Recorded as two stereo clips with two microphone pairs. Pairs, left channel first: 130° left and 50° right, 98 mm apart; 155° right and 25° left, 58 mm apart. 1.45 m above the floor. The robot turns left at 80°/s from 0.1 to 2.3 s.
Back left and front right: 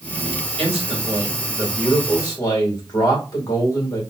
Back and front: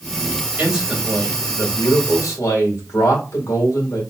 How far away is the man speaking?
About 2.5 m.